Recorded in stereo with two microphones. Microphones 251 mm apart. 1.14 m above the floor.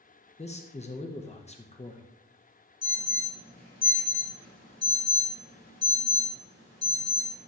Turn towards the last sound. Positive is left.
turn(degrees=-70)  # may be behind; listen again after turning